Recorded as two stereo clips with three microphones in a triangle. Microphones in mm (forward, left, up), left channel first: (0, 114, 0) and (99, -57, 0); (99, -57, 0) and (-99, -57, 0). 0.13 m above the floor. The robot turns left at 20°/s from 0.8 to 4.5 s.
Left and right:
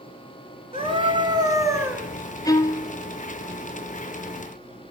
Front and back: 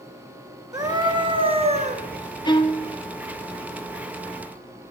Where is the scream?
110° right, 2.5 m; by 2.1 s 135° right, 2.5 m.